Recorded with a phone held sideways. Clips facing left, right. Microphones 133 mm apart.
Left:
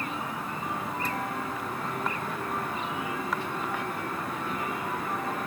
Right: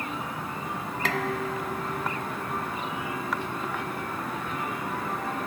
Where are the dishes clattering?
90° right.